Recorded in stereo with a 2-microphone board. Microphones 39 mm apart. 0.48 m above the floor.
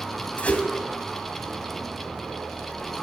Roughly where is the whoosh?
Left.